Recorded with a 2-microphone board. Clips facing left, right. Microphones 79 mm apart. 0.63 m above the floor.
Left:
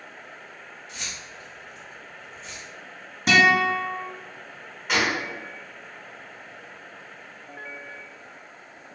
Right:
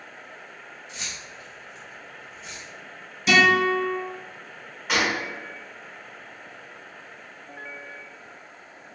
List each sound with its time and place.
0.9 s keys jangling: 20° right (ahead or behind), 1.2 m; by 2.6 s centre (ahead or behind), 0.8 m
3.3 s a guitar: 50° left (ahead or behind), 1.0 m
4.9 s a gunshot: centre (ahead or behind), 1.0 m